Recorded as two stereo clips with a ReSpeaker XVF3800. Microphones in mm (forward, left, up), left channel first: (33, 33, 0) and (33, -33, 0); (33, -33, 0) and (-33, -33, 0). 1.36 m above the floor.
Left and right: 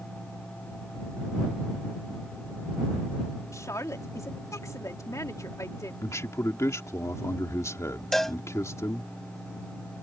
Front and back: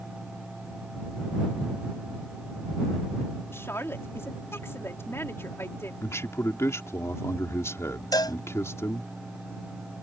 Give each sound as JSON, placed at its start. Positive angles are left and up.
{"t": 3.5, "sound": "a woman speaking", "azimuth_deg": 50}
{"t": 6.0, "sound": "a man speaking", "azimuth_deg": 45}
{"t": 8.1, "sound": "a cowbell", "azimuth_deg": 5}